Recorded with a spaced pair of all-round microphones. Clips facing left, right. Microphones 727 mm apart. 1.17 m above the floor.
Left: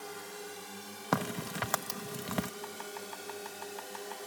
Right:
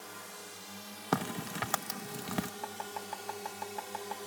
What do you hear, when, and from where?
0.0 s a drone: 10° right (ahead or behind); by 4.3 s 40° right (ahead or behind)
1.1 s a crack: 5° left (ahead or behind)
2.6 s chopping: 75° right (ahead or behind)